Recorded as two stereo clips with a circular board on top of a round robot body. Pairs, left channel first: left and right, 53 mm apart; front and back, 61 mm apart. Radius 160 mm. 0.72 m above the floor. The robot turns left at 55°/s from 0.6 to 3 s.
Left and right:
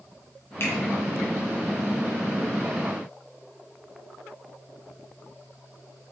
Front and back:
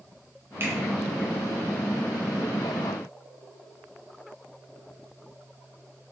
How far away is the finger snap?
About 1.2 m.